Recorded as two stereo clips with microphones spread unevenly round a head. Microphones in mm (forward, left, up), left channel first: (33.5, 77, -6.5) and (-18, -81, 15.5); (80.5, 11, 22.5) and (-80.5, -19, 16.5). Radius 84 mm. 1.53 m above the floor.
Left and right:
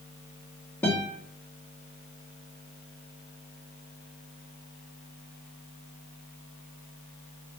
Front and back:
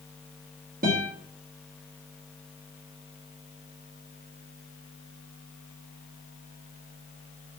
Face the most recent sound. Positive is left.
turn(degrees=150)